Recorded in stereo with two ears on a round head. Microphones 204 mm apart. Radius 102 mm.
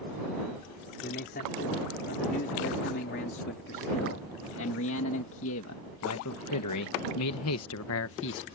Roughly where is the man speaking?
Left.